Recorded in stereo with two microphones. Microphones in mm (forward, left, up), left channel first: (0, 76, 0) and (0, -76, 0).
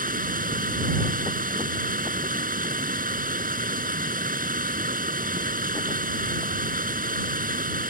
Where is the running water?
70° right (ahead or behind).